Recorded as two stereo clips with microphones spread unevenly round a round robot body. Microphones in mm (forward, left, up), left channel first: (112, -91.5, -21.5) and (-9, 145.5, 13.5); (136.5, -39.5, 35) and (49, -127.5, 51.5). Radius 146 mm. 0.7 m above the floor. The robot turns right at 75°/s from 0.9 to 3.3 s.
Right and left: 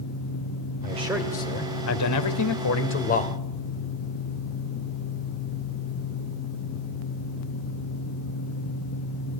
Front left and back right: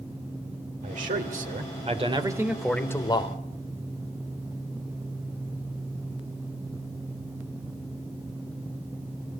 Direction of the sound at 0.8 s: 175° right.